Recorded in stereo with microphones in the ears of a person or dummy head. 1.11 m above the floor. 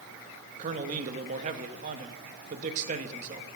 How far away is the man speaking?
About 1.2 m.